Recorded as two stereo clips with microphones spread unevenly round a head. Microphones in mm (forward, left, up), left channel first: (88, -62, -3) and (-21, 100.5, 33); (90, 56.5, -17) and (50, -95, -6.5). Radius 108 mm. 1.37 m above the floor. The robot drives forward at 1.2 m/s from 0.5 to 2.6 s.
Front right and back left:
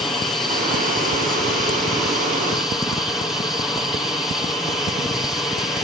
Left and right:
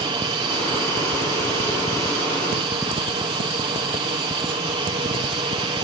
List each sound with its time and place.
0.0 s an aircraft: 125° right; by 5.8 s 130° right